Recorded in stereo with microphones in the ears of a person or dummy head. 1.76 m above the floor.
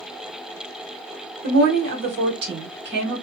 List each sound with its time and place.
1.4 s a woman speaking: 55° right (ahead or behind), 1.2 m